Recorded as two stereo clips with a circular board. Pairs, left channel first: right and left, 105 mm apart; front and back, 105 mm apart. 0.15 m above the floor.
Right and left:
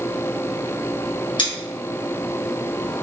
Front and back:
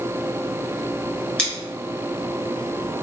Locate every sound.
1.4 s scissors: 75° right, 1.7 m